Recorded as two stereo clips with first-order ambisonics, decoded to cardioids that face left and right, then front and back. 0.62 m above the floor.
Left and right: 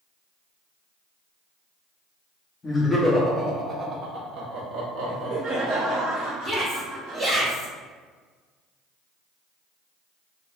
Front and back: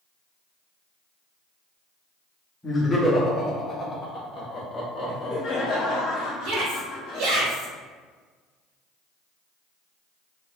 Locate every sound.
2.6 s laughter: 55° left, 0.9 m; by 6.0 s 65° right, 1.8 m
5.0 s laughter: 50° right, 1.6 m
6.4 s a shout: 170° right, 1.2 m